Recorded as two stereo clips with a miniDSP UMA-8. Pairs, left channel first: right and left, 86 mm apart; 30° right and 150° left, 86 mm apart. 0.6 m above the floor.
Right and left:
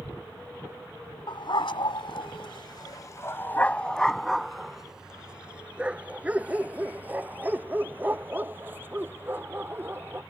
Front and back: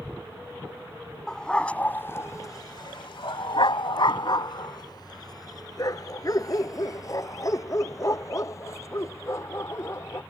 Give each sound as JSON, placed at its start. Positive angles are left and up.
{"t": 1.3, "sound": "a dog barking", "azimuth_deg": -110}